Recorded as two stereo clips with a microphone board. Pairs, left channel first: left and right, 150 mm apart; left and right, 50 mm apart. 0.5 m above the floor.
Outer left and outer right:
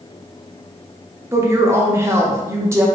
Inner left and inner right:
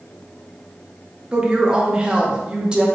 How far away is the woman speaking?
About 0.7 m.